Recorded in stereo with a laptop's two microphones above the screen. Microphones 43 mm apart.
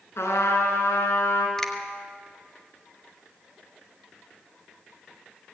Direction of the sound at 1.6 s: 15° left (ahead or behind).